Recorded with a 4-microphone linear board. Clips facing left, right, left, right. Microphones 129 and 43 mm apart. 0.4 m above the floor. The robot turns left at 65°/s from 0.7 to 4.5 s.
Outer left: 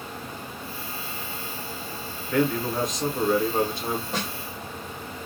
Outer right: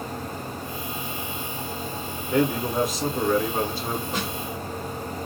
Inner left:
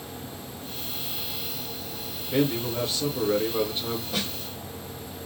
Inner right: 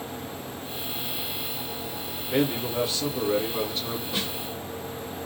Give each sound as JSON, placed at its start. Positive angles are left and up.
{"t": 2.3, "sound": "a man speaking", "side_deg": -20, "distance_m": 0.8}
{"t": 4.1, "sound": "a snare drum", "side_deg": -5, "distance_m": 1.4}